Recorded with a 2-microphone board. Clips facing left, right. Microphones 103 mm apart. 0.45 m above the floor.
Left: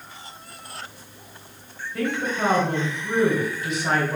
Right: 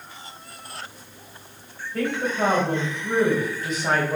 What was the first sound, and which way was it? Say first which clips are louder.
A woman speaking: right 1 dB; 40° right (ahead or behind).